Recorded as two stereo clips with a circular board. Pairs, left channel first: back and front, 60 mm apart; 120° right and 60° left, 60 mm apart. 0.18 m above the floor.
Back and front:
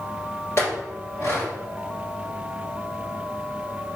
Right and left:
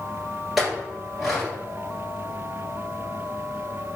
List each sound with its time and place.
0.6 s a clink: 145° left, 2.0 m